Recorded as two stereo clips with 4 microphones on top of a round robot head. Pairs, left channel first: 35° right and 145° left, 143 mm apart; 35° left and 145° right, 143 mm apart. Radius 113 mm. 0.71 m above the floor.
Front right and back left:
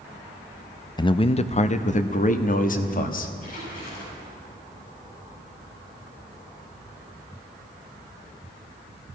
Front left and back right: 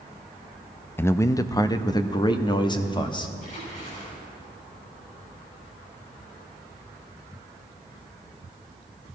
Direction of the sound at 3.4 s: Straight ahead.